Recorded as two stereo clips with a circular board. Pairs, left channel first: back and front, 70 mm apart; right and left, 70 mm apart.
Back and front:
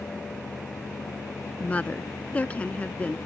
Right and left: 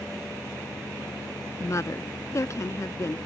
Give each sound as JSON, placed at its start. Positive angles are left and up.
{"t": 1.6, "sound": "a woman speaking", "azimuth_deg": -115}